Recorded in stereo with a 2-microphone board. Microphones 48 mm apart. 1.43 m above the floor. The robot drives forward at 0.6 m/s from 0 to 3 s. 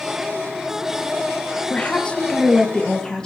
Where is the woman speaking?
30° left (ahead or behind), 1.5 m; by 3.3 s 20° left (ahead or behind), 2.5 m.